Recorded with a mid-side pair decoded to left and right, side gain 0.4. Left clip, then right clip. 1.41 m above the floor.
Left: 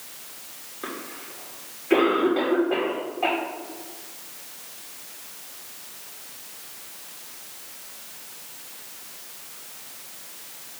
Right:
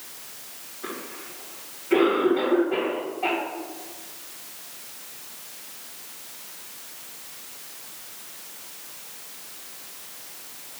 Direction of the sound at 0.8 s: 60° left.